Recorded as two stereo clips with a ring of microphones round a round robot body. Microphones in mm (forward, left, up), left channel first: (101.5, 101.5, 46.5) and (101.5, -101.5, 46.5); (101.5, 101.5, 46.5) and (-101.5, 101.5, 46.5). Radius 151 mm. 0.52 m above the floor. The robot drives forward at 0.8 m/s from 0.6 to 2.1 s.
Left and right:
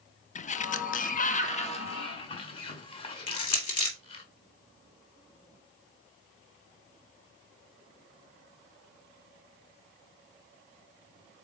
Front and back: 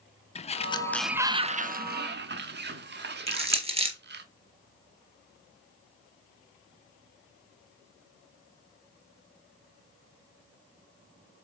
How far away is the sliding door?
About 0.7 m.